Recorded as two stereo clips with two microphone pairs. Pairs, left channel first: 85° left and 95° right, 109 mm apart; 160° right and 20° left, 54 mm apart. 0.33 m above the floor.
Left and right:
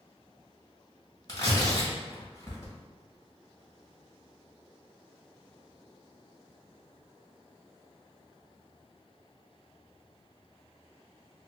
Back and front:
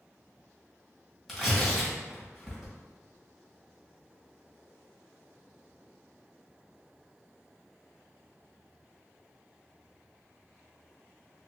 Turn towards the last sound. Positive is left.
turn(degrees=110)